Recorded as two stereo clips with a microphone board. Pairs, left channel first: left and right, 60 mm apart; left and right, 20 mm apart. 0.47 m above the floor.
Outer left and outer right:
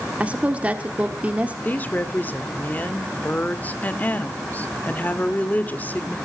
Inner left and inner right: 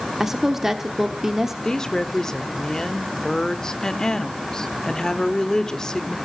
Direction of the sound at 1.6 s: 30° left (ahead or behind).